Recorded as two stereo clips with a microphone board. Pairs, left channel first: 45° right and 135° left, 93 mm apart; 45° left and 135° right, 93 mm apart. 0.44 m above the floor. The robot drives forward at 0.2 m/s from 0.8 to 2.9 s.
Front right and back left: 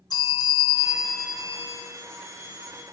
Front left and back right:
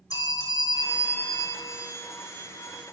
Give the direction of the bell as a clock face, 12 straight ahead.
12 o'clock.